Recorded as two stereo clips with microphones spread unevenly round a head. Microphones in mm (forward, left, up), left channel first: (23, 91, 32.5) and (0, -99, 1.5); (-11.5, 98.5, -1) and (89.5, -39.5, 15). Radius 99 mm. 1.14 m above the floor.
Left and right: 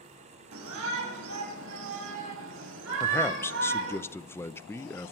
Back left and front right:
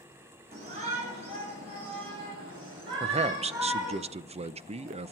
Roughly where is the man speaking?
Ahead.